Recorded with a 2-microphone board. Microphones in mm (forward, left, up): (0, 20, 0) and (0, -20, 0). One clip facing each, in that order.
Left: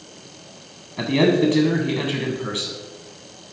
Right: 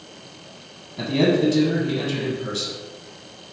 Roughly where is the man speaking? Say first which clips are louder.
Left 2 dB; left.